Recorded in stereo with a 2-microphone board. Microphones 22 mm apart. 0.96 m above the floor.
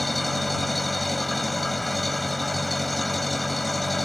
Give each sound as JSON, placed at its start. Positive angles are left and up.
{"t": 0.0, "sound": "an engine running", "side_deg": 0}